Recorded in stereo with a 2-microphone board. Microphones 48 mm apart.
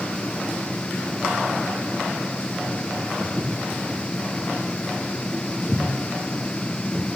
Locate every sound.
3.2 s footsteps: 20° left (ahead or behind), 7.5 m; by 7.1 s 5° left (ahead or behind), 6.5 m